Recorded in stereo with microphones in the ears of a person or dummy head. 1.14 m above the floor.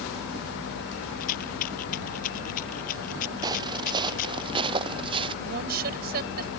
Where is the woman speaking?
50° right (ahead or behind).